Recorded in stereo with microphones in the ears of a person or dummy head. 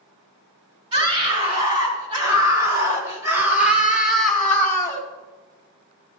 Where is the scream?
30° right (ahead or behind), 3.5 m; by 5.0 s 20° left (ahead or behind), 1.3 m.